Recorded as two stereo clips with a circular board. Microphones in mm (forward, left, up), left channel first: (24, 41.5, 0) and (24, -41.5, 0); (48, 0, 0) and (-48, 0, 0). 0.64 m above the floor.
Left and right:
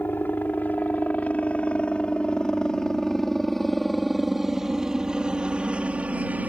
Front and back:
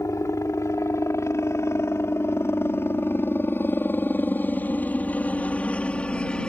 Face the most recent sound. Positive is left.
turn(degrees=-65)